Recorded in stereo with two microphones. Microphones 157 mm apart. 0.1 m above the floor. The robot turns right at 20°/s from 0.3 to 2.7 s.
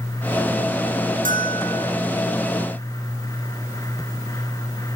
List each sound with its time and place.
1.2 s a bell: 70° right (ahead or behind), 3 m; by 1.9 s 75° right (ahead or behind), 3 m